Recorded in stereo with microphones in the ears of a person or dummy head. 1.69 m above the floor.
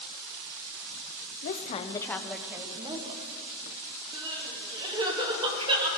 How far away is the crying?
About 2 m.